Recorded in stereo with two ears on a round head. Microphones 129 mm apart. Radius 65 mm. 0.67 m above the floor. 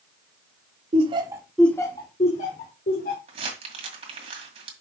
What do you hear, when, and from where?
0.9 s laughter: 45° right (ahead or behind), 1.2 m; by 3.2 s 65° left (ahead or behind), 2.5 m
3.3 s crumpling: 40° right (ahead or behind), 2.0 m